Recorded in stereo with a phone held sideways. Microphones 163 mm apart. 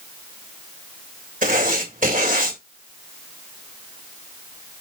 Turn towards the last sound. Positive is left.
turn(degrees=-55)  # may be behind; listen again after turning